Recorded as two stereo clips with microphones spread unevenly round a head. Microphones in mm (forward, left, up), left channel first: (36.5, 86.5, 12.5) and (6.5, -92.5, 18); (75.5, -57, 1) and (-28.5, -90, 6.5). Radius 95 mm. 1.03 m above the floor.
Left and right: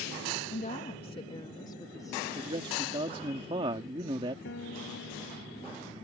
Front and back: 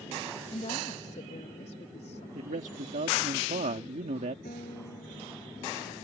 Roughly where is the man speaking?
Behind.